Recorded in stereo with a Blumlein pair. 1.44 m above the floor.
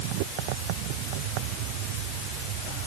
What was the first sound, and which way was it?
Only background noise.